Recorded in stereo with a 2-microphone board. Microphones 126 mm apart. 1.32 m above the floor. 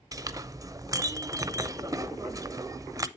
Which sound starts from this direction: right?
A clink, at 0.1 s.